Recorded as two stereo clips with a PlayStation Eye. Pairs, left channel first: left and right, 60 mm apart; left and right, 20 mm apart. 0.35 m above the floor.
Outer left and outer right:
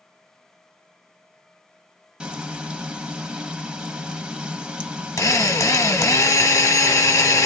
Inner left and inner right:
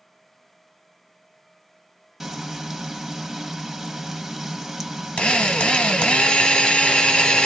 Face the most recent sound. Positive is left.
turn(degrees=70)  # may be behind; listen again after turning